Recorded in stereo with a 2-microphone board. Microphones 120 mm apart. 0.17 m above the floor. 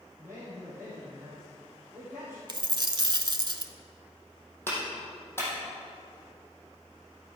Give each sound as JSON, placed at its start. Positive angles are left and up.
{"t": 0.2, "sound": "a man speaking", "side_deg": -25, "distance_m": 4.0}
{"t": 2.5, "sound": "a dropped coin", "side_deg": -40, "distance_m": 0.7}
{"t": 4.7, "sound": "a clap", "side_deg": 20, "distance_m": 4.5}